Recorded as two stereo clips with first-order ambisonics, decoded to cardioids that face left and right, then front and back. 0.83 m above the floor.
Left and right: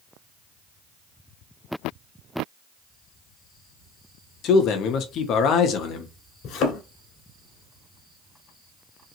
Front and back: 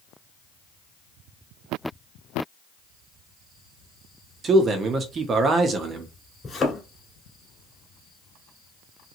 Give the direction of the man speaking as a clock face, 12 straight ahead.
8 o'clock.